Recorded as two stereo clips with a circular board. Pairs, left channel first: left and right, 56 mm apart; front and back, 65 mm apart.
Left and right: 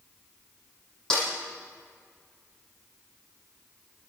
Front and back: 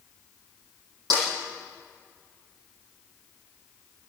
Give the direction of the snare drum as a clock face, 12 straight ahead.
6 o'clock.